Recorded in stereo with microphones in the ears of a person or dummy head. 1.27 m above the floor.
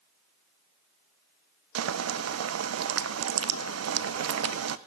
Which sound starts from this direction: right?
Boiling, at 1.8 s.